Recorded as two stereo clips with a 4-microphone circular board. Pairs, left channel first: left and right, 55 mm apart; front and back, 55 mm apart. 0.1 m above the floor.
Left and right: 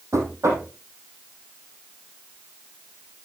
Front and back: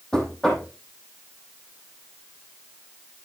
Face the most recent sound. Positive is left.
turn(degrees=-75)